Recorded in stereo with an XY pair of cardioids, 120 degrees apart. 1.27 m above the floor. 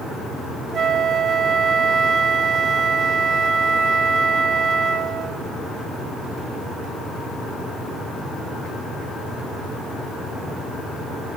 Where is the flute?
45° right, 0.7 m.